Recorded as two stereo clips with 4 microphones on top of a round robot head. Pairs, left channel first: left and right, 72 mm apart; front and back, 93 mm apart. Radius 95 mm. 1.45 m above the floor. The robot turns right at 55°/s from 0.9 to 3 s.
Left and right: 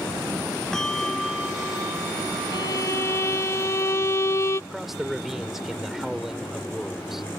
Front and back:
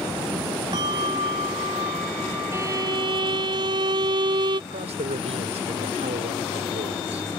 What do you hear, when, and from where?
0.7 s a bell: 165° left; by 3.5 s 80° right
2.5 s a violin: 115° left; by 4.6 s 140° left
4.7 s a man speaking: 175° right